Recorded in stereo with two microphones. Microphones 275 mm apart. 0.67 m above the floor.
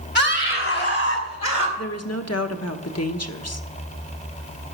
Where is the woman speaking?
65° left (ahead or behind), 1.0 m.